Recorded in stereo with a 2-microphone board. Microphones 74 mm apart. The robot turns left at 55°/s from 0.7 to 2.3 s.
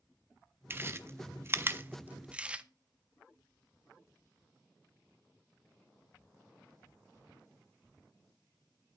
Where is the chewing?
30° right (ahead or behind), 0.6 m; by 2.6 s 15° right (ahead or behind), 0.6 m.